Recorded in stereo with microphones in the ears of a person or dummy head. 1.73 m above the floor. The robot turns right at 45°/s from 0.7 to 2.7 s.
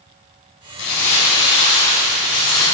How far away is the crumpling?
About 4.5 m.